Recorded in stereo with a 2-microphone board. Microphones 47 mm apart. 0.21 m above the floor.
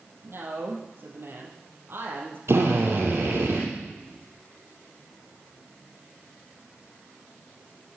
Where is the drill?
60° right (ahead or behind), 4 m.